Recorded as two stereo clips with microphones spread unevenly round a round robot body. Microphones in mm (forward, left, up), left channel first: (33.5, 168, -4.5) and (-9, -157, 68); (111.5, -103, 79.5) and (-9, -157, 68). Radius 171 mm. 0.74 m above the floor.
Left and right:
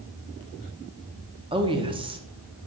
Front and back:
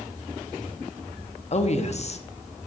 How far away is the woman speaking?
About 1.0 m.